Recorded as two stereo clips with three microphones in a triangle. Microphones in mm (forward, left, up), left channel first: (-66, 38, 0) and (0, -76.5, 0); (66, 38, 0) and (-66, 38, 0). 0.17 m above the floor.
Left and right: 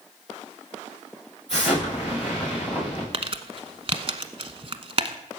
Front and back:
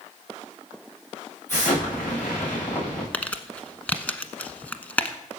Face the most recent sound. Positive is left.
turn(degrees=-75)